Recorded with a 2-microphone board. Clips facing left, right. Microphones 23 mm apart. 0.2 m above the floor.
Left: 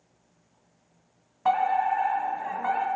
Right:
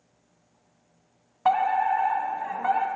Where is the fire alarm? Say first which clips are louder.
Right 1 dB; 20° right (ahead or behind), 2 m.